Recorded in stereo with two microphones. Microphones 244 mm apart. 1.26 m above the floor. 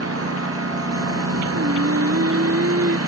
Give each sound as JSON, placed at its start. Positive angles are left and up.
{"t": 0.0, "sound": "a lawn mower", "side_deg": -70}
{"t": 1.5, "sound": "singing", "side_deg": -65}